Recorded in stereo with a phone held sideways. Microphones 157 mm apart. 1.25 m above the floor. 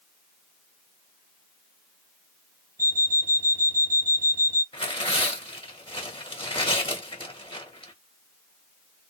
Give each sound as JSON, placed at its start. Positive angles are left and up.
{"t": 2.8, "sound": "an alarm clock", "side_deg": 65, "distance_m": 1.7}
{"t": 4.7, "sound": "tearing paper", "side_deg": 35, "distance_m": 1.5}